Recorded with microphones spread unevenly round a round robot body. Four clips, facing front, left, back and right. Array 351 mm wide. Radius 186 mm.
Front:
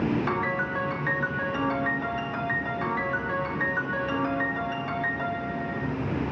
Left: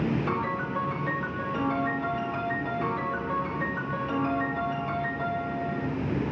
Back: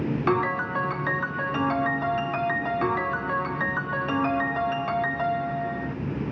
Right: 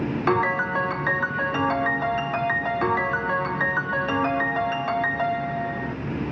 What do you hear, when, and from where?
0.3 s a piano: 120° right, 0.7 m